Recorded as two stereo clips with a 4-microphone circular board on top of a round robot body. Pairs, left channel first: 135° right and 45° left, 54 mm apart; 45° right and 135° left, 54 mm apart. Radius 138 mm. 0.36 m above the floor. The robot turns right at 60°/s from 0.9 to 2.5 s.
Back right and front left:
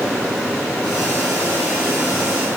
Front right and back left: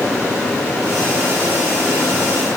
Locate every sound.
Only background noise.